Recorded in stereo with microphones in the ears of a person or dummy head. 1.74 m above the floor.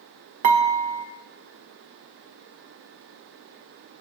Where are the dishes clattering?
40° right (ahead or behind), 1.4 m.